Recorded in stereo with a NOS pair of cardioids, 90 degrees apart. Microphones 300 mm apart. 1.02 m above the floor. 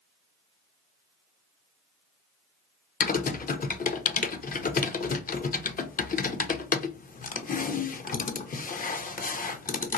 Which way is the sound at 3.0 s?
25° left.